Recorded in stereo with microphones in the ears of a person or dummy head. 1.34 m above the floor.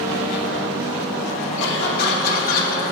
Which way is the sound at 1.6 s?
65° left (ahead or behind).